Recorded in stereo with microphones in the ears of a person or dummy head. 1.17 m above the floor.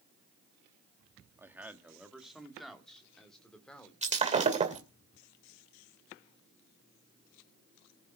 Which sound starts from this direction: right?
Breaking glass, at 4.0 s.